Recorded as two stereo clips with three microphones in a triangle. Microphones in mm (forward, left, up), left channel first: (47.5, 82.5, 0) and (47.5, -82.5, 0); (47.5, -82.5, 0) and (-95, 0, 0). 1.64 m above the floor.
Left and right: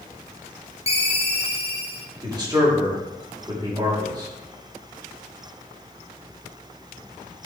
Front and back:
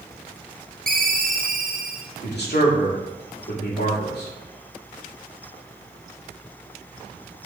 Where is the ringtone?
135° left, 1.1 m.